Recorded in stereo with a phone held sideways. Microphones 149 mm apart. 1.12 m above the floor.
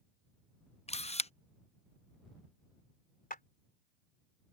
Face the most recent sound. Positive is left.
turn(degrees=75)  # may be behind; listen again after turning